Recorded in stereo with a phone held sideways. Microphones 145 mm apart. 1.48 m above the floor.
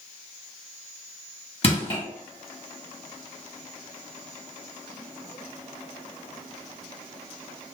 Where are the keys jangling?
No keys jangling in this recording.